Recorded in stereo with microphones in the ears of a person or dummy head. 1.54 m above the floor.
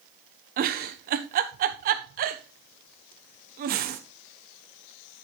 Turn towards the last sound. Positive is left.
turn(degrees=-45)  # may be behind; listen again after turning